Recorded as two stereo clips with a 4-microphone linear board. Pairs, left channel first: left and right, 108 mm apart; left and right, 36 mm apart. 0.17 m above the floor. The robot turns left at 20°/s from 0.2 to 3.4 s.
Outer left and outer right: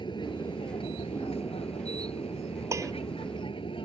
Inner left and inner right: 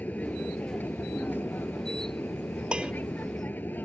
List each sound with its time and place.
0.0 s an aircraft: 125° left; by 3.8 s 65° left
2.7 s dishes clattering: 25° right (ahead or behind); by 2.9 s 30° right (ahead or behind)